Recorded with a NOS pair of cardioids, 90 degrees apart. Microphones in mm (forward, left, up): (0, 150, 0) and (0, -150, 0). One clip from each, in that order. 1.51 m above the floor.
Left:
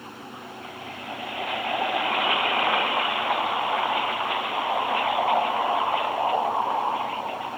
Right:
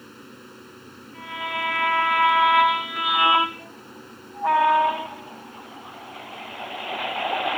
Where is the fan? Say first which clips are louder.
Left 6 dB; 20° left.